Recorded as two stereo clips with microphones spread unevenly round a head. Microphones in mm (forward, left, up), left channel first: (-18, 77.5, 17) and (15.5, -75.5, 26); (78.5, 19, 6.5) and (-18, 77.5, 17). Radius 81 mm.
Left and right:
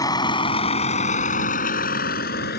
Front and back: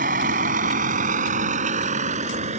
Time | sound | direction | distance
0.0 | a vehicle | 170° left | ?